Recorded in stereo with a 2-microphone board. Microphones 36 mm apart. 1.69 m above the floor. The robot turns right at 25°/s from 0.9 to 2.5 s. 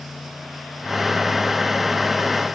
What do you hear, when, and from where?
Only background noise.